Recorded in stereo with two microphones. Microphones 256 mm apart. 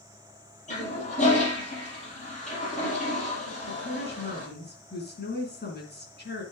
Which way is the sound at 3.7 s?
40° left (ahead or behind).